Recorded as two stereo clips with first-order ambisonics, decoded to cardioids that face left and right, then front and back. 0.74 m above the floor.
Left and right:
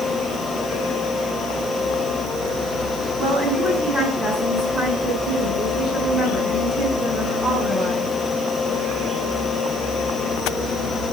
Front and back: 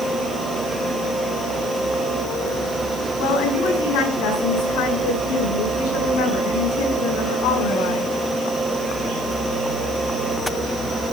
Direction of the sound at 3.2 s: 15° right.